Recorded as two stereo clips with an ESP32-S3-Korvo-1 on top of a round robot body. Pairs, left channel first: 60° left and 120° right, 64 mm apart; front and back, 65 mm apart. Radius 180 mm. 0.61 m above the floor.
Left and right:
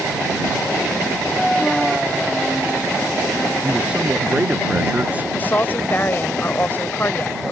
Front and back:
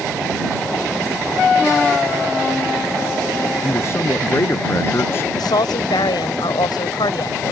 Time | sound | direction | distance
3.6 | a man speaking | 50° right | ?
5.3 | a woman speaking | 5° right | ?